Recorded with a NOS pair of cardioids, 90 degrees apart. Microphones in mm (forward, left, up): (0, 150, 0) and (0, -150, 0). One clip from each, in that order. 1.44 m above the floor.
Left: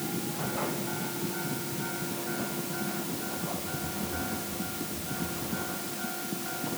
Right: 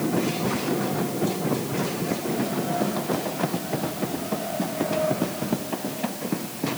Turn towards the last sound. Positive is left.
No sound to turn to.